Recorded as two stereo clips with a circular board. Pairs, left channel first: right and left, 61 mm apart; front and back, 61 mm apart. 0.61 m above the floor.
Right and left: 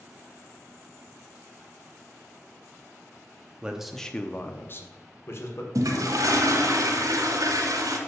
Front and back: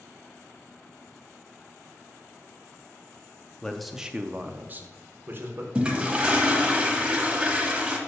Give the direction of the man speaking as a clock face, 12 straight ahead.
10 o'clock.